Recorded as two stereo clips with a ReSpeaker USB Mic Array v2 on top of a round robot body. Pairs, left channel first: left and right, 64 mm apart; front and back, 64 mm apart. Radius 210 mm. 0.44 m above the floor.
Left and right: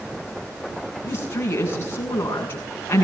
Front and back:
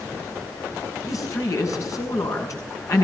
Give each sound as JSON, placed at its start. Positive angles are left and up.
{"t": 1.0, "sound": "a woman speaking", "azimuth_deg": 35, "distance_m": 7.5}